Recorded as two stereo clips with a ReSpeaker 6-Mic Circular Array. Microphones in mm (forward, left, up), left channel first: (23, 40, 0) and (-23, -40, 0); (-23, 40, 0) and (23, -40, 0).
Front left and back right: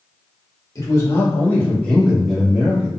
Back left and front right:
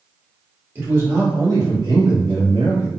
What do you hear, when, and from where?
0.8 s a man speaking: 5° left, 1.4 m; by 2.9 s 45° right, 1.2 m